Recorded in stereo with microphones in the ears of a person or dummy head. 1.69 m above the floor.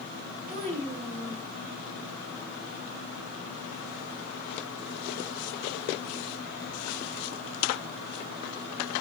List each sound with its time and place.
0.5 s a child speaking: 35° right (ahead or behind), 0.8 m